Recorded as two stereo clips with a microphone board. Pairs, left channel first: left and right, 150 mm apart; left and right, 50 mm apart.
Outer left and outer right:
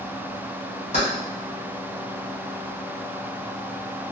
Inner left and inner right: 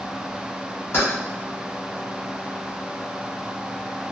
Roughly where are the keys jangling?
Left.